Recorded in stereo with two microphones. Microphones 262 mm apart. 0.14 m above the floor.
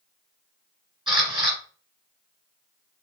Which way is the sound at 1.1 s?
20° right (ahead or behind).